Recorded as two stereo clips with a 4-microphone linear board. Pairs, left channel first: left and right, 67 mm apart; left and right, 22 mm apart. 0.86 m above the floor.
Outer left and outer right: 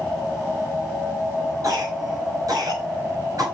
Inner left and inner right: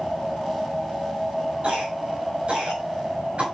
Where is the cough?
55° right (ahead or behind), 6 m.